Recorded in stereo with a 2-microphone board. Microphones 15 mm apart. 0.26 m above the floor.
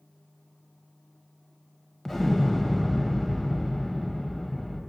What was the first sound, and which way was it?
An explosion, 20° left (ahead or behind).